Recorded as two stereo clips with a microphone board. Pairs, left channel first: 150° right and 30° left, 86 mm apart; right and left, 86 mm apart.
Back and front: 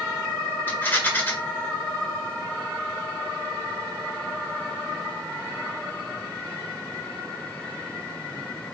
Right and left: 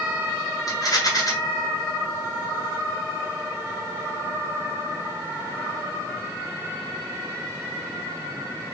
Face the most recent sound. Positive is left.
turn(degrees=-90)